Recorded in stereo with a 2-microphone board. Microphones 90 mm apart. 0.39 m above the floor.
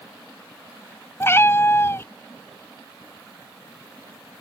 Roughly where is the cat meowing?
Left.